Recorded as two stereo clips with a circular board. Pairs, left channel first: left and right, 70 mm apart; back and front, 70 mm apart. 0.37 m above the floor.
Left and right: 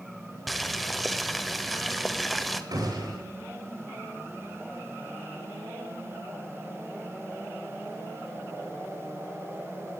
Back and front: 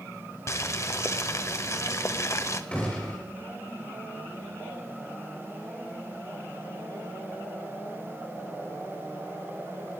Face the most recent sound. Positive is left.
turn(degrees=-105)